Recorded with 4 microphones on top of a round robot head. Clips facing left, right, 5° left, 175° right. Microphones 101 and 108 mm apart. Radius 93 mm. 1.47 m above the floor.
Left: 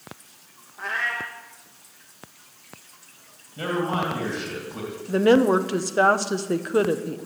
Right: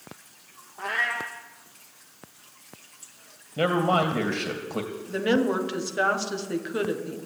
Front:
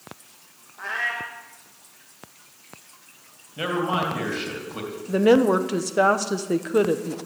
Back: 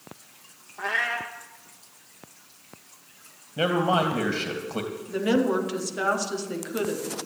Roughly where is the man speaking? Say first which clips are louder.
Right 3 dB, back 2 dB; behind right.